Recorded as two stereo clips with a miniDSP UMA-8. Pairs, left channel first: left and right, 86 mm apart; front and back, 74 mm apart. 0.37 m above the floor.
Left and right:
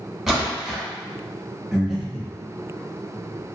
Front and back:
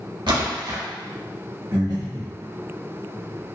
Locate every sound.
0.3 s a splash: straight behind, 1.1 m
1.7 s breathing: 175° right, 0.9 m